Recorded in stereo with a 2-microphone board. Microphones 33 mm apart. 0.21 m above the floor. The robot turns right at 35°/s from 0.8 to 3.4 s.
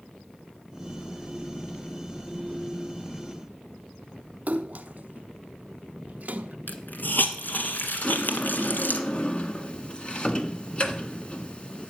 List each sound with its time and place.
4.5 s a splash: 45° right (ahead or behind), 0.8 m
6.7 s a hiss: 60° left (ahead or behind), 1.5 m
8.0 s a sliding door: 35° left (ahead or behind), 1.6 m